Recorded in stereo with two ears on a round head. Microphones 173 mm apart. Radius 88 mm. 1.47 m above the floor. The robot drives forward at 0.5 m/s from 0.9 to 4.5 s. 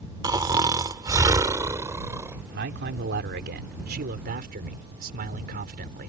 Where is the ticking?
No ticking in this recording.